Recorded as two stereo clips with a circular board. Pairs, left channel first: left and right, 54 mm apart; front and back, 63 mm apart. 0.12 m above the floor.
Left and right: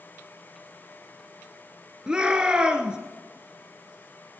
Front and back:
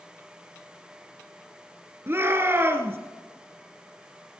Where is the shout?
155° right, 1.6 m.